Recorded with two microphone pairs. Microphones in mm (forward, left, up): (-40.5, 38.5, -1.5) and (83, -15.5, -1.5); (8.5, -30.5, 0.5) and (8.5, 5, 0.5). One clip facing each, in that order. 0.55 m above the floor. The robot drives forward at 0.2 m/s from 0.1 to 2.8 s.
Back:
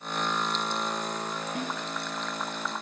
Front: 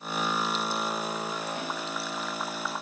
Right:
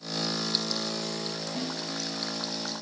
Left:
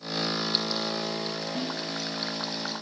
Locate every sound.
1.6 s a snare drum: 150° left, 4 m